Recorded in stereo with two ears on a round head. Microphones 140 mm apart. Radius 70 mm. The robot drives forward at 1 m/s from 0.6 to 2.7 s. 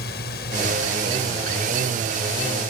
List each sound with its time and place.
0.0 s a drone: 70° left (ahead or behind)